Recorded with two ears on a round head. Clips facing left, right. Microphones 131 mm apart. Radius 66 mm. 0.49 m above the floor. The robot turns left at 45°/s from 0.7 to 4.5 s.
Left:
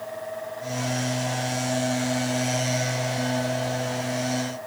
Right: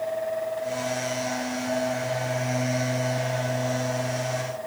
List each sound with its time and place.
Only background noise.